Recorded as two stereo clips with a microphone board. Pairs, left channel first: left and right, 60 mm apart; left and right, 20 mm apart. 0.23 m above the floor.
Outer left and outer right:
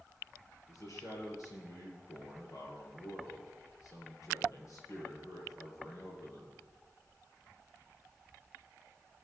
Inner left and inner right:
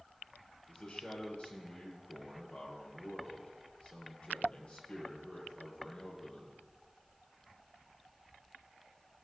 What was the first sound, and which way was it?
A man speaking, 65° left (ahead or behind).